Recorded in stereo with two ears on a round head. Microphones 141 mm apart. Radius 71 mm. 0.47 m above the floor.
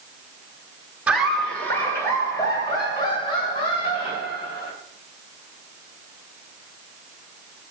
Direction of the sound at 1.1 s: 5° right (ahead or behind).